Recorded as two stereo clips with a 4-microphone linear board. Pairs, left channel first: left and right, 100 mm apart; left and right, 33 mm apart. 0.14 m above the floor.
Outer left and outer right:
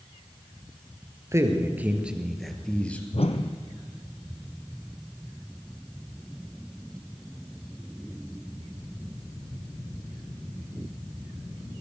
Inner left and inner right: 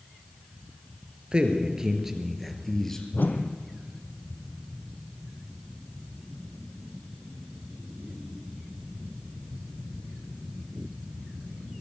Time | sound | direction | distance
1.3 | a man speaking | 30° right (ahead or behind) | 3 m
3.1 | a whoosh | 80° left | 1.3 m